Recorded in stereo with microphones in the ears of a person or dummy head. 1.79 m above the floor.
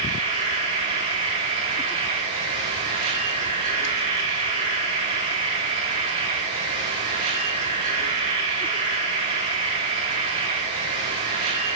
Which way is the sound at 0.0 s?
40° right (ahead or behind).